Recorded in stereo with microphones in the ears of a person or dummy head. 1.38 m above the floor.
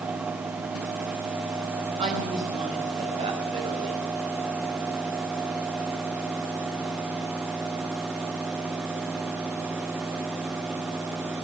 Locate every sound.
2.0 s a woman speaking: 30° right (ahead or behind), 6.5 m